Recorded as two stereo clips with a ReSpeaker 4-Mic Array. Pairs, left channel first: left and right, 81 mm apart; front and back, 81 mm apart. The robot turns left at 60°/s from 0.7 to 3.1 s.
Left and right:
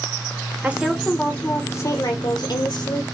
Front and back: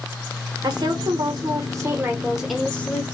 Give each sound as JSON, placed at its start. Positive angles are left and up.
{"t": 0.6, "sound": "a woman speaking", "azimuth_deg": -160, "distance_m": 0.7}